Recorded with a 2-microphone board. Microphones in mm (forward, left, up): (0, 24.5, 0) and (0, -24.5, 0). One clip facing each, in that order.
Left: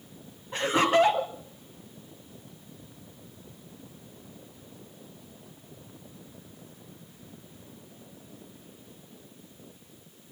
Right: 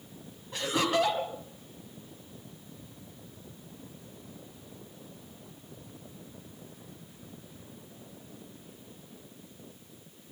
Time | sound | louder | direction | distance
0.5 | laughter | left 5 dB | 30° left (ahead or behind) | 1.6 m